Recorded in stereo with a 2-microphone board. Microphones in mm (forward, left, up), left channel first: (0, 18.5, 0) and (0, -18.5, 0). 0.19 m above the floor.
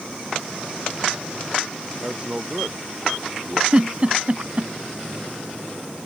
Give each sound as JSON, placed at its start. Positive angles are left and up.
{"t": 2.0, "sound": "a man speaking", "side_deg": -25}
{"t": 3.7, "sound": "a giggle", "side_deg": -35}